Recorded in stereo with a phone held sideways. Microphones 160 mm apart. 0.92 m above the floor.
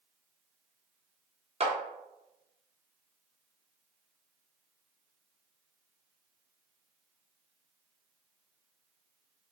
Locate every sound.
1.6 s a clap: 40° right (ahead or behind), 0.5 m